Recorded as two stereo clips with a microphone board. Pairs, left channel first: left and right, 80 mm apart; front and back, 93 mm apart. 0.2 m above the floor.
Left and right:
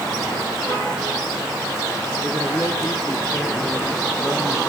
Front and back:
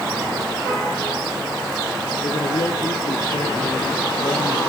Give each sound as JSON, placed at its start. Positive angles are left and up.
{"t": 2.2, "sound": "a man speaking", "azimuth_deg": 25, "distance_m": 3.5}